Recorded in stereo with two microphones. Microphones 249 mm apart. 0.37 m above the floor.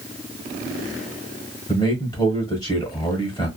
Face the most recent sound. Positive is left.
turn(degrees=15)  # may be behind; listen again after turning